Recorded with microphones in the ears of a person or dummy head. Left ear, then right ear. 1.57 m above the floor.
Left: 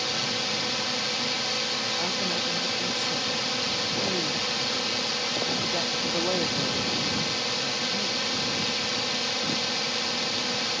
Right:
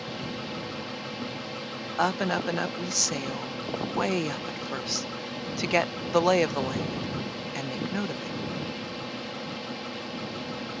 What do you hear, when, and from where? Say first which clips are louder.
0.0 s a drone: left 9 dB; 55° left (ahead or behind)
2.0 s a woman speaking: even; 60° right (ahead or behind)